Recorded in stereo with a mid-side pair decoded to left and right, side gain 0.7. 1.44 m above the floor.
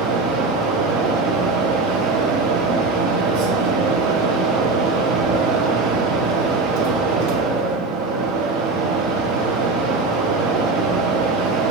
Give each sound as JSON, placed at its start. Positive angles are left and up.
{"t": 0.0, "sound": "a fan", "azimuth_deg": -65, "distance_m": 0.8}